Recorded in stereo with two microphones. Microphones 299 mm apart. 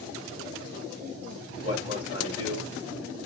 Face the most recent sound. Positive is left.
turn(degrees=-20)  # may be behind; listen again after turning